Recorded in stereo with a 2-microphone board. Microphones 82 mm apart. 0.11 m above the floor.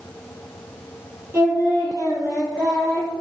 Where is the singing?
30° right (ahead or behind), 1.9 m.